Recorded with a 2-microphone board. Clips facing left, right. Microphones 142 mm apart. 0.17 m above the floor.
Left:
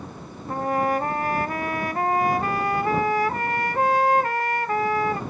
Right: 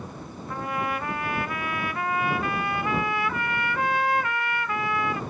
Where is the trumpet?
40° left (ahead or behind).